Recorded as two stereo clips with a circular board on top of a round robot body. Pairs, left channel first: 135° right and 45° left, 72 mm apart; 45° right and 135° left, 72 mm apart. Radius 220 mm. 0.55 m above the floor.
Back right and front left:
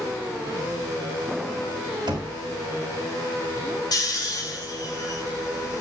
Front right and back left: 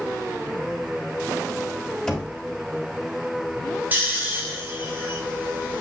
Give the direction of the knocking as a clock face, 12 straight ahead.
11 o'clock.